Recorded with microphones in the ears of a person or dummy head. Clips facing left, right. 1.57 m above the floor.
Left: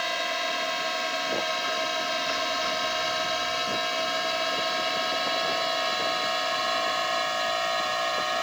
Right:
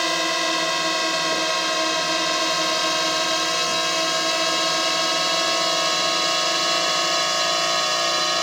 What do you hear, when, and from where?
0.0 s a drone: 80° right; by 8.4 s 65° right (ahead or behind)